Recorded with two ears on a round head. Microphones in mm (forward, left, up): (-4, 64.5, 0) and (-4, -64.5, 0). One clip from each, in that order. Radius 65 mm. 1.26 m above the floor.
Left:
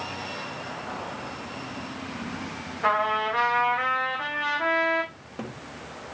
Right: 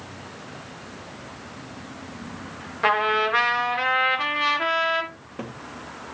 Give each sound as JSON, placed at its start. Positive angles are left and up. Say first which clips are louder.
{"t": 2.8, "sound": "a trumpet", "louder": "right 3 dB", "side_deg": -80, "distance_m": 1.8}
{"t": 5.1, "sound": "a cupboard door", "louder": "right 1 dB", "side_deg": 5, "distance_m": 1.3}